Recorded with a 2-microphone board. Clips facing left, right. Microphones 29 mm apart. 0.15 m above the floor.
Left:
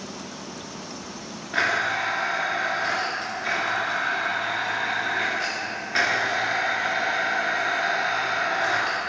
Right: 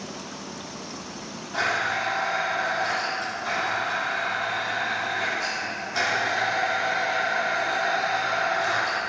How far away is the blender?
About 2 m.